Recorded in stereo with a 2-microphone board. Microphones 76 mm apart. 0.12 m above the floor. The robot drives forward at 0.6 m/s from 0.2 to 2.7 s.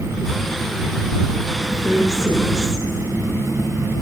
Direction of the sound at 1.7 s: 35° left (ahead or behind).